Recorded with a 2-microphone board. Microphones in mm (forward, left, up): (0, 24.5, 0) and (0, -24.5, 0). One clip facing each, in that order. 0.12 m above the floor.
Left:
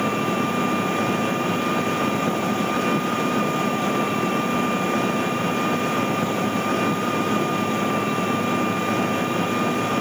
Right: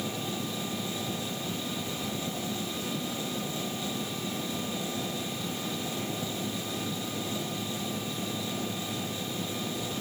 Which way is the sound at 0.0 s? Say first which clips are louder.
Left 12 dB; 75° left (ahead or behind).